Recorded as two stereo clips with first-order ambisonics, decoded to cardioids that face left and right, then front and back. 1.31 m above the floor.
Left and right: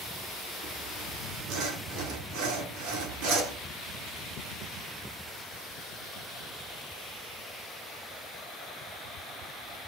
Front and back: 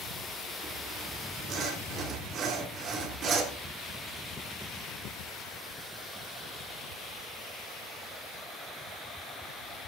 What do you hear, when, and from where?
0.6 s sawing: 125° right, 3 m